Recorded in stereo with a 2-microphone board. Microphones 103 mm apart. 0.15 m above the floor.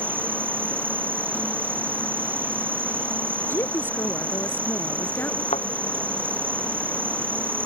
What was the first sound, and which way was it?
An insect, 20° right (ahead or behind).